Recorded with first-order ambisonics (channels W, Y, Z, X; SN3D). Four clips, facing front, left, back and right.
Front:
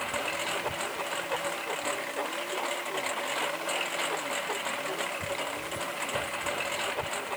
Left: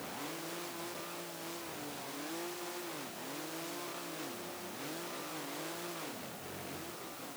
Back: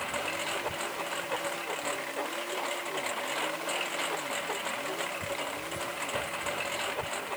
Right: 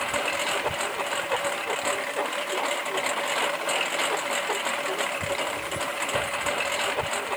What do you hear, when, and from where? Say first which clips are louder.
0.0 s a lawn mower: right 16 dB, front 1 dB; 85° right